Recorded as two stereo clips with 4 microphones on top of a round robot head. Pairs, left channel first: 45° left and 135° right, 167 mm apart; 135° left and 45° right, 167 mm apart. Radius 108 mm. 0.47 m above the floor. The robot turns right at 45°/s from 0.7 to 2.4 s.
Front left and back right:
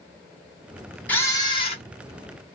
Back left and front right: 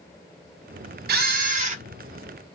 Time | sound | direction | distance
1.1 | a camera shutter | 35° right | 0.8 m